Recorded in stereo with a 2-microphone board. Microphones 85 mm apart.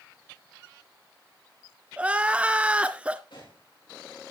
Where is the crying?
15° right (ahead or behind), 0.7 m.